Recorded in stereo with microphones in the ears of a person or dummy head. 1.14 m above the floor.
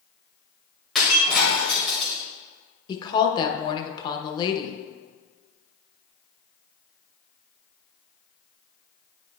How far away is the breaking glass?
About 1.6 m.